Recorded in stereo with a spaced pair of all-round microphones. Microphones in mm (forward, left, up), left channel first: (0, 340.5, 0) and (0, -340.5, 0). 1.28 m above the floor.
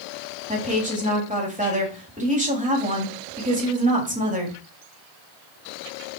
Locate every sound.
0.5 s a woman speaking: 10° right (ahead or behind), 3 m